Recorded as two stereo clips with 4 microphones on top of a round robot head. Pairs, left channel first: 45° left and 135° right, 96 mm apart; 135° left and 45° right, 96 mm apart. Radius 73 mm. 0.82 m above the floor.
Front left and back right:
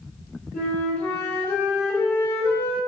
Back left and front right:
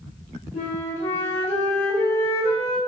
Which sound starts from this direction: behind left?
A flute, at 0.5 s.